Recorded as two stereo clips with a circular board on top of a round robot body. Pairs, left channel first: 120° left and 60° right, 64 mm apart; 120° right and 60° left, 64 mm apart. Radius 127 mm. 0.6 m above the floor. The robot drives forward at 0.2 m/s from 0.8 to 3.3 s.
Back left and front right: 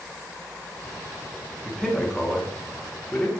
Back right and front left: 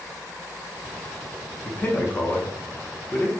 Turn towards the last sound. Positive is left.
turn(degrees=-170)